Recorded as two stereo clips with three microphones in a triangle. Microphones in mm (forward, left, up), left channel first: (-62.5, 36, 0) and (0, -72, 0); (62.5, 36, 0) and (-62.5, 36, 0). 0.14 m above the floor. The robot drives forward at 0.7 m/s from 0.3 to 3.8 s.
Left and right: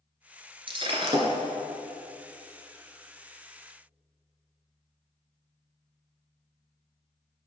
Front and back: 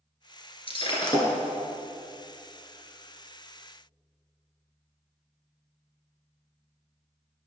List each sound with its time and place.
0.7 s breaking glass: 30° right, 1.4 m; by 1.3 s 45° right, 1.1 m